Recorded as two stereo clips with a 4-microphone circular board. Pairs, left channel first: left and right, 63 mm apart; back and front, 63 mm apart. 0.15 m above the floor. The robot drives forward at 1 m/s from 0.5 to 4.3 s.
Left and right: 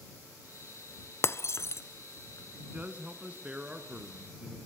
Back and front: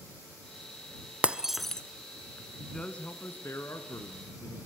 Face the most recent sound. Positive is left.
turn(degrees=-165)